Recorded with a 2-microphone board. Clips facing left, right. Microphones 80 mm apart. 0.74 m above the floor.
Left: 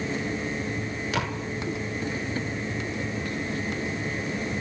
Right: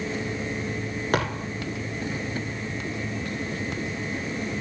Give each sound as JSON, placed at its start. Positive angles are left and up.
{"t": 1.1, "sound": "a thud", "side_deg": -50, "distance_m": 8.0}